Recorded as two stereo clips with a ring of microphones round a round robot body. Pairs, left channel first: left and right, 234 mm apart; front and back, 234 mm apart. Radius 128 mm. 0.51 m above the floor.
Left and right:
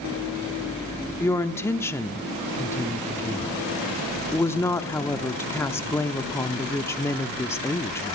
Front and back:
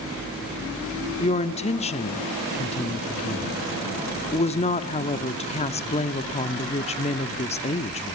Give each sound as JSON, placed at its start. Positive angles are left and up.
{"t": 1.2, "sound": "a woman speaking", "azimuth_deg": 20, "distance_m": 0.9}